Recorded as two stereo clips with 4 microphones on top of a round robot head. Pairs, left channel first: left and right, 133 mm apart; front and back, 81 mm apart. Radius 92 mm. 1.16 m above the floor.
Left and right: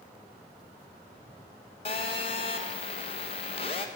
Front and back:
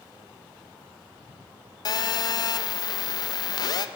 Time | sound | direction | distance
1.9 | a phone buzzing | 35° left | 0.5 m